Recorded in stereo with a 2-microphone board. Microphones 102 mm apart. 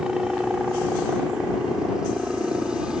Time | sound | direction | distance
0.0 | a helicopter | 5° right (ahead or behind) | ?